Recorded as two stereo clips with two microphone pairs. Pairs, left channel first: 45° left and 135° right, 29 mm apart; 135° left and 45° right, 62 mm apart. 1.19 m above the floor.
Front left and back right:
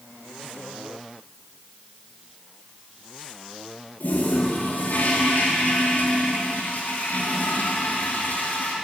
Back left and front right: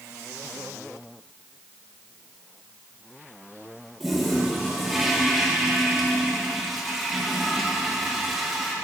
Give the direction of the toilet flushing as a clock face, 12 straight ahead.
11 o'clock.